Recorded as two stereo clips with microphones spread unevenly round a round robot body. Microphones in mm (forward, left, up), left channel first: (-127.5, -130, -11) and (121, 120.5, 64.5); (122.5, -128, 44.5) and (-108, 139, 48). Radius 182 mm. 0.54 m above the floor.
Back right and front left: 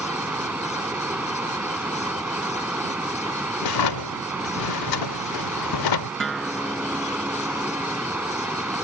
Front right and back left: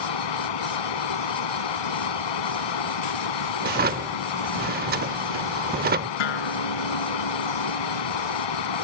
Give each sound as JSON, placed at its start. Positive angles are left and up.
{"t": 0.0, "sound": "running water", "azimuth_deg": -40}
{"t": 3.6, "sound": "a drawer", "azimuth_deg": -165}
{"t": 6.2, "sound": "a guitar", "azimuth_deg": -45}